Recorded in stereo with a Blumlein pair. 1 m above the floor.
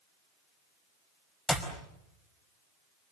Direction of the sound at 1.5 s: 10° left.